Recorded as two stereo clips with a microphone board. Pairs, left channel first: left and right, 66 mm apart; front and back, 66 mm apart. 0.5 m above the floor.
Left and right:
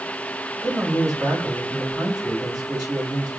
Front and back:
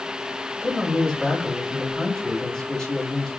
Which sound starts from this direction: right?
A man speaking, at 0.6 s.